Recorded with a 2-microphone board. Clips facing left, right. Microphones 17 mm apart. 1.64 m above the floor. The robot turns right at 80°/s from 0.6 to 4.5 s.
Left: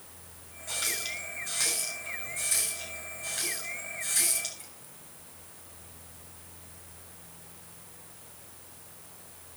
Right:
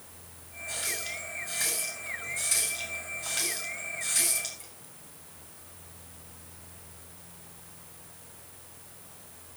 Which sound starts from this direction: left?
A running tap, at 0.7 s.